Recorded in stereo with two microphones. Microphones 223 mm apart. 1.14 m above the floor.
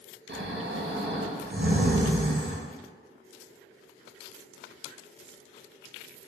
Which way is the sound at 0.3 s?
55° right (ahead or behind).